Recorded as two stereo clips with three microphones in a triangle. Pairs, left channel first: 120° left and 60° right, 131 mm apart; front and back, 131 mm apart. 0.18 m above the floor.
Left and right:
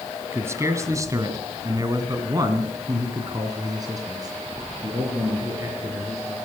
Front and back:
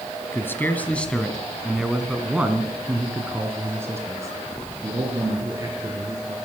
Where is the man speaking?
30° right, 1.4 m; by 6.3 s 120° right, 3.5 m.